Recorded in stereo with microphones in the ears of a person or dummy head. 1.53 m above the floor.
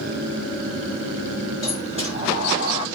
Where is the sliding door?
25° right (ahead or behind), 7 m.